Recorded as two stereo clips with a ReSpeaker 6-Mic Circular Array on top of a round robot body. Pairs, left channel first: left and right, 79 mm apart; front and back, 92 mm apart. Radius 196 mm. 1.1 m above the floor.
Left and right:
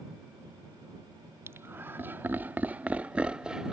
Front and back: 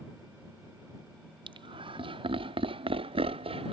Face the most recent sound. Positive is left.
turn(degrees=-175)